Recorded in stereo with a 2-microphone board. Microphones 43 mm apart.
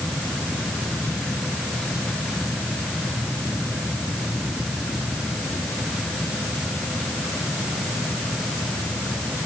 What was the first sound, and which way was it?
Only background noise.